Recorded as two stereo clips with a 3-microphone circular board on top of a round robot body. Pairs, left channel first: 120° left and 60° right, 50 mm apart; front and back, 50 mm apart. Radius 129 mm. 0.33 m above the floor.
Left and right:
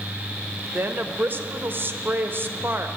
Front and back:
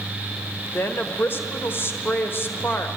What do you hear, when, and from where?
0.7 s a woman speaking: 25° right, 1.4 m